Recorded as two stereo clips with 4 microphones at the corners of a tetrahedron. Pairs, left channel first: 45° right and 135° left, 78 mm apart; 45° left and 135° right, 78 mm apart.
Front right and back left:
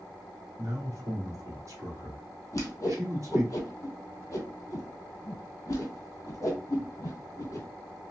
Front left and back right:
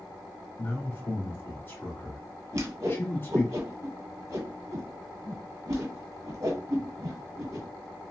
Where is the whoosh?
90° right, 1.2 m.